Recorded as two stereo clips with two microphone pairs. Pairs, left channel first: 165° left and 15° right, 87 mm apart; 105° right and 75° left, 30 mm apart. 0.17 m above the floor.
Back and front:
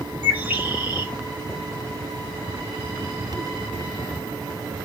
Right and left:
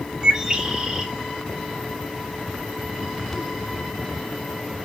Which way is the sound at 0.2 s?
35° left.